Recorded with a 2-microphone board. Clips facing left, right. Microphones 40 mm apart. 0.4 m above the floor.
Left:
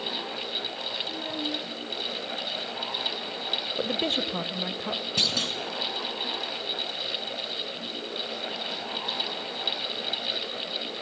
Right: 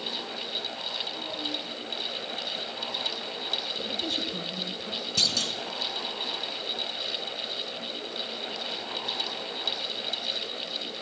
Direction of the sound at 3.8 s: 45° left (ahead or behind).